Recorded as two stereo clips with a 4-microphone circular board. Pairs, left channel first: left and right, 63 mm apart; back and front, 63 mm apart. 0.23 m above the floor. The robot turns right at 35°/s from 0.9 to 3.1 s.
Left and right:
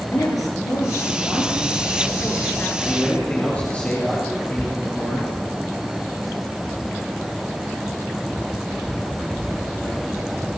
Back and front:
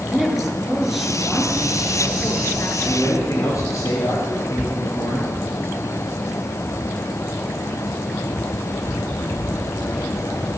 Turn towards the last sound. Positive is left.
turn(degrees=155)